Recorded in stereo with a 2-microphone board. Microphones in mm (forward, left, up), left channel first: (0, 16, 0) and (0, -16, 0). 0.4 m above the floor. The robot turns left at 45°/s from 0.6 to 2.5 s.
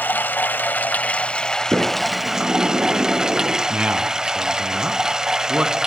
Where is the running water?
65° left, 0.7 m; by 5.9 s 20° right, 0.7 m.